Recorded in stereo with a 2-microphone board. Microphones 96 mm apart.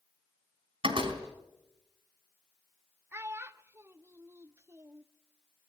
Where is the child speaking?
25° right (ahead or behind), 0.6 m.